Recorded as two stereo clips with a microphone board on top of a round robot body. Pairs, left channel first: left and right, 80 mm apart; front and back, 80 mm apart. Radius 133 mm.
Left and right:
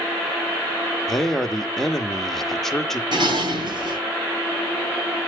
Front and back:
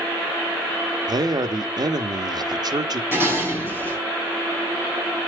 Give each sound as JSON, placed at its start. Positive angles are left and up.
{"t": 1.1, "sound": "a man speaking", "azimuth_deg": 175, "distance_m": 1.3}
{"t": 3.1, "sound": "dishes clattering", "azimuth_deg": -115, "distance_m": 6.5}